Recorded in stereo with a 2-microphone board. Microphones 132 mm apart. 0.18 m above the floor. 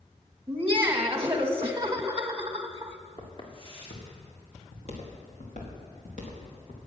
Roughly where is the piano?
I don't hear a piano.